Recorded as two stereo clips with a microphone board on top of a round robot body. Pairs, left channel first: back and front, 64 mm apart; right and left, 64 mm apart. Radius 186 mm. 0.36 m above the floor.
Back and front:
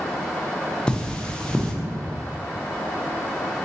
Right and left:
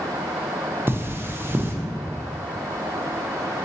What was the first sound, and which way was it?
Cutlery clinking, 110° left.